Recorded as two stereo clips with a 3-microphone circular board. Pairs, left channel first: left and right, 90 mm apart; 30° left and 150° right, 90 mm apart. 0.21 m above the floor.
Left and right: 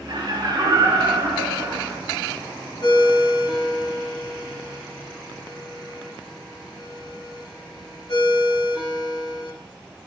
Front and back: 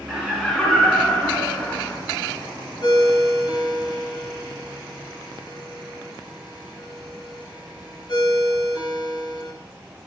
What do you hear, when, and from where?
0.1 s laughter: 65° right, 2 m; by 2.0 s 30° right, 2 m
2.8 s a ringtone: 60° left, 2.5 m